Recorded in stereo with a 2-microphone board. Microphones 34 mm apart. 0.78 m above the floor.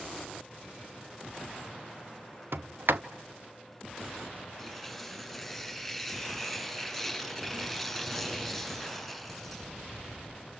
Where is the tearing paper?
Centre (ahead or behind), 7.5 m.